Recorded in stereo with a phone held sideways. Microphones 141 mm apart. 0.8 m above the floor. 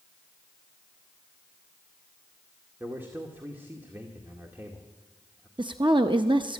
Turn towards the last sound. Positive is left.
turn(degrees=-35)  # may be behind; listen again after turning